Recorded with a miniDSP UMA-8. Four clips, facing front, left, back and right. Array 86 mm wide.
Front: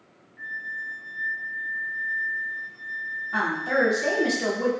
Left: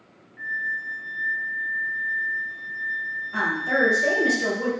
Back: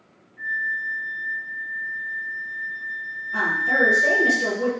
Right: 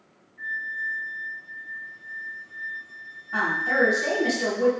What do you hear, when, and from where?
0.4 s a flute: 85° left, 0.8 m
3.3 s a woman speaking: 35° right, 1.5 m